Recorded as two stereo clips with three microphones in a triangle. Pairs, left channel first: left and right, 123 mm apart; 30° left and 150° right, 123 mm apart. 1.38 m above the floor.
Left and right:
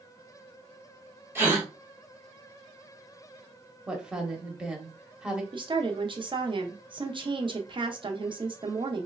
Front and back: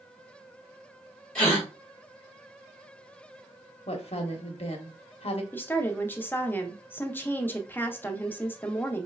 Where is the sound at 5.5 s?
45° right, 0.6 m.